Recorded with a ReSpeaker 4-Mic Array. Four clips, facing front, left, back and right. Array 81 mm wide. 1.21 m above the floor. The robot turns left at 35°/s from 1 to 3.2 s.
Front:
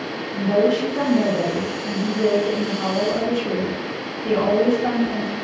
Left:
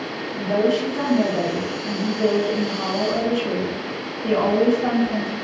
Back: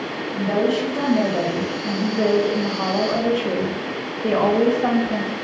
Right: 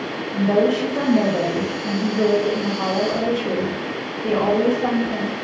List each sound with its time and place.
0.3 s a woman speaking: 100° right, 1.6 m; by 5.3 s straight behind, 1.6 m